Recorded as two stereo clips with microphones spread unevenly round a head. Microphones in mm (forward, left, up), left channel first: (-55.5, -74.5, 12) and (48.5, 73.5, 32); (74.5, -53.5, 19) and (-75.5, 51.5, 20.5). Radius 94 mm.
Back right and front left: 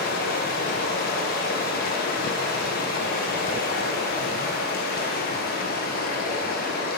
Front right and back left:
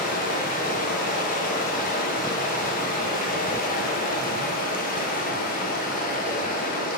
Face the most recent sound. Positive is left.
turn(degrees=-80)